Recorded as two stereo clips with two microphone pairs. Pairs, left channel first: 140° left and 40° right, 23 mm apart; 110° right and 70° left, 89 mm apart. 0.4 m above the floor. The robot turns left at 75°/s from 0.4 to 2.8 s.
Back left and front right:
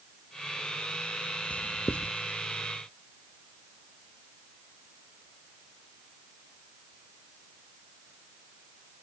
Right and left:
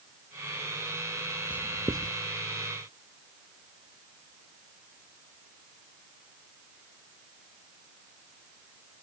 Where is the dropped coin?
I don't hear a dropped coin.